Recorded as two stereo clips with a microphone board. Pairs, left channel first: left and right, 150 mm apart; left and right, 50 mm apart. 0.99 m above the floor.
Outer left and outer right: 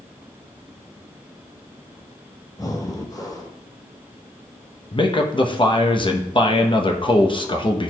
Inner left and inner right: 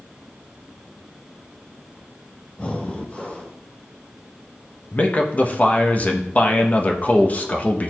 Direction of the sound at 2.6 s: 25° left (ahead or behind).